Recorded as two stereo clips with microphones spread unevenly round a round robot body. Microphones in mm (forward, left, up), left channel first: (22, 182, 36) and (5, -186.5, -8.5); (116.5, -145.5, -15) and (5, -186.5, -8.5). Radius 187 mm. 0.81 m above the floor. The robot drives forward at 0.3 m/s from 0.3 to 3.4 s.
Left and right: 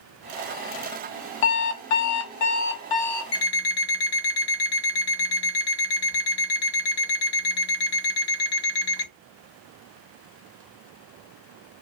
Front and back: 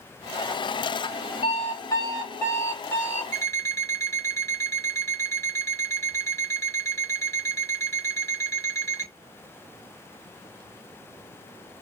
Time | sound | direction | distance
1.4 | an alarm clock | 85° left | 0.7 m
3.3 | an alarm clock | 125° left | 0.7 m